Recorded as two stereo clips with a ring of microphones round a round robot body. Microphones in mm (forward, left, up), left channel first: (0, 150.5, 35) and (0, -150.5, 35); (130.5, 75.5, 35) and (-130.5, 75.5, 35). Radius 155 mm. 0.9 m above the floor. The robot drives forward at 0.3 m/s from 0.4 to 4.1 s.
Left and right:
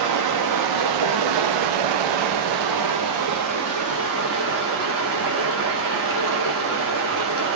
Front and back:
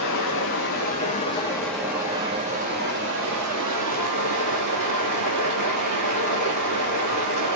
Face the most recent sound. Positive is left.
turn(degrees=-140)